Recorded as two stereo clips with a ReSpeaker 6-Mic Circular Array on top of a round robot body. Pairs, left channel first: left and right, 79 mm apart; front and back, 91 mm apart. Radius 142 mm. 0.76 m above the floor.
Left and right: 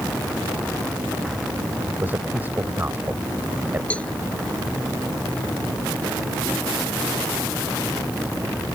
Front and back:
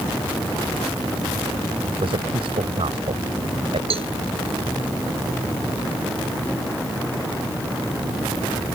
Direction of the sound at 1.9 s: 160° right.